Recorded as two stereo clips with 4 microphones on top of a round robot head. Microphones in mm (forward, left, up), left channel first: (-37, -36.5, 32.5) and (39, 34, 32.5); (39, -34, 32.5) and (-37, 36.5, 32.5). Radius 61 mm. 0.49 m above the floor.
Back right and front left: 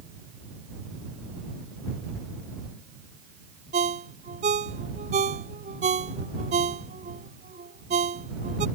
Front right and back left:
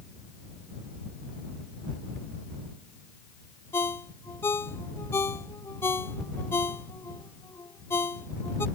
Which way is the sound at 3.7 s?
25° left.